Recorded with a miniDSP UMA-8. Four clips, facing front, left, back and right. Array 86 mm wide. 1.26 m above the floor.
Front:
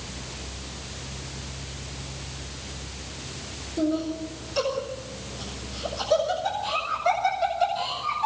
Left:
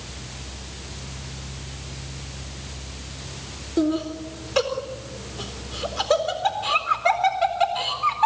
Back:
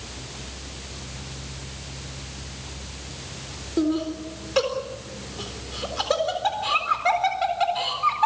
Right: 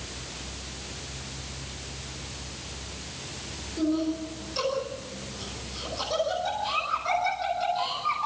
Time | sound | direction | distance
3.8 | laughter | 125° left | 4 m